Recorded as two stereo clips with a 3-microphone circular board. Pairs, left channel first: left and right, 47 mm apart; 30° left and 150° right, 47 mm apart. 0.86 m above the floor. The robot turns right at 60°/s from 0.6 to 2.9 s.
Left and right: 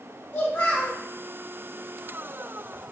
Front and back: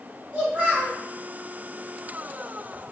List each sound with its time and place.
0.3 s a child speaking: 145° left, 0.9 m; by 1.0 s 170° left, 0.9 m